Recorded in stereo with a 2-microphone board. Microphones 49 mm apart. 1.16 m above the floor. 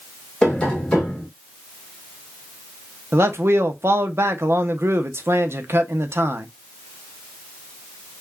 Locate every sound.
0.4 s tapping: 20° left (ahead or behind), 1.6 m
3.1 s a man speaking: 60° right (ahead or behind), 0.7 m